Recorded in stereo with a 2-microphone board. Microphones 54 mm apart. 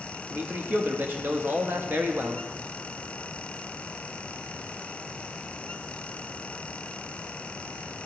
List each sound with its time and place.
0.3 s a man speaking: 40° right (ahead or behind), 0.7 m